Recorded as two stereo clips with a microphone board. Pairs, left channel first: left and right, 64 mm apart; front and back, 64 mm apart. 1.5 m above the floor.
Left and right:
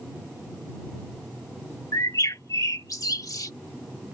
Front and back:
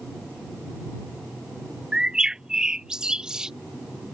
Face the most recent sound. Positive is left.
turn(degrees=105)